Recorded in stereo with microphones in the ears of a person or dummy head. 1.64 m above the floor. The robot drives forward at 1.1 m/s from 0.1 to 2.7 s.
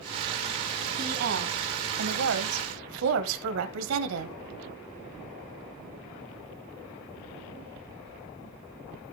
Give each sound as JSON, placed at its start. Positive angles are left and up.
{"t": 1.0, "sound": "a woman speaking", "side_deg": -50, "distance_m": 2.5}